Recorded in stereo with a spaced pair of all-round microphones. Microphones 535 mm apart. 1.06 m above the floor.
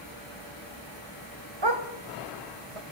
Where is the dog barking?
55° right (ahead or behind), 2.5 m; by 2.9 s 70° right (ahead or behind), 3 m.